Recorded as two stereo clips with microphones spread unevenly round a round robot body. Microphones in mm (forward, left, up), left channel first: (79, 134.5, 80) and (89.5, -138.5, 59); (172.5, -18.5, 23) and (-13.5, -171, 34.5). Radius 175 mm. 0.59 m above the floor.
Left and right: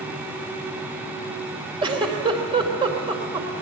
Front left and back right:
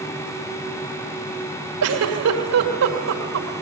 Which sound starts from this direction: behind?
A giggle, at 1.8 s.